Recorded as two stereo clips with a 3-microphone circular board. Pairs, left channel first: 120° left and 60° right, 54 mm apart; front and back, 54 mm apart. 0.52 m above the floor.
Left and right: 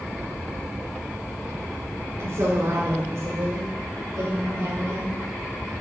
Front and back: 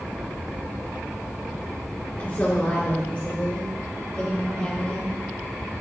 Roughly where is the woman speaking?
Ahead right.